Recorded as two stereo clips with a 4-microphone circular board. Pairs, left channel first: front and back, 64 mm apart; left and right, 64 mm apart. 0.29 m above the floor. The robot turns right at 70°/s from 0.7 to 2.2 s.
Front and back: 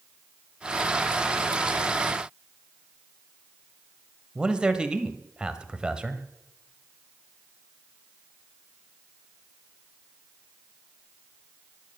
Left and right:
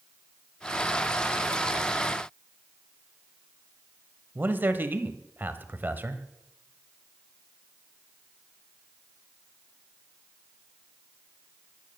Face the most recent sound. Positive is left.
turn(degrees=-115)